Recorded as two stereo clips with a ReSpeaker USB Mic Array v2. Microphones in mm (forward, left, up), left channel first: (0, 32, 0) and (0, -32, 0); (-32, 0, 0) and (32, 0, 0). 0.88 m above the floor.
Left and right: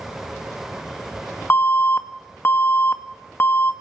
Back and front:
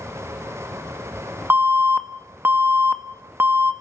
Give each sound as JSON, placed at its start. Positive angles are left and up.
{"t": 1.5, "sound": "an alarm", "azimuth_deg": 45, "distance_m": 1.9}